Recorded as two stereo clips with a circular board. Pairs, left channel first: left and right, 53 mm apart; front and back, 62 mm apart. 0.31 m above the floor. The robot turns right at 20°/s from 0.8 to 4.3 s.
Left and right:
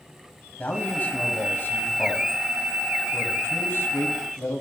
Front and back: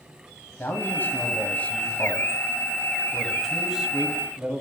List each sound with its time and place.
0.6 s a man speaking: 45° left, 1.7 m; by 4.6 s 115° left, 1.7 m